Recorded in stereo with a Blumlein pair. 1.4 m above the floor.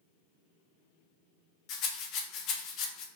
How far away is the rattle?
About 0.5 m.